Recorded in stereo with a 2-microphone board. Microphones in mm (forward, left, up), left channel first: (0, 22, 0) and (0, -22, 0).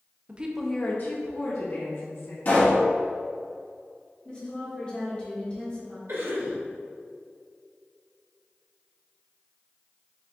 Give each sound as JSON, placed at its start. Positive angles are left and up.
{"t": 0.3, "sound": "a woman speaking", "side_deg": -30, "distance_m": 0.7}
{"t": 2.5, "sound": "a pop", "side_deg": 45, "distance_m": 1.8}
{"t": 4.2, "sound": "a woman speaking", "side_deg": 25, "distance_m": 1.4}
{"t": 6.1, "sound": "a cough", "side_deg": -70, "distance_m": 2.0}